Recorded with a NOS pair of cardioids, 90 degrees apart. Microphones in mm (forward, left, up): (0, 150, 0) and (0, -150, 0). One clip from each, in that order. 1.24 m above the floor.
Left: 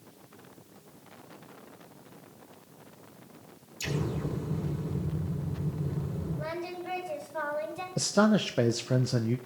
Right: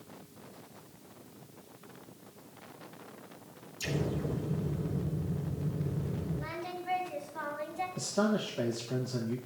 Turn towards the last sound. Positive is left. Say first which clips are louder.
# left 7 dB
turn(degrees=65)